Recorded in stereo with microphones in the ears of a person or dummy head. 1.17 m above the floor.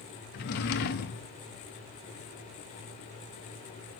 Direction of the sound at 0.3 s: 55° left (ahead or behind).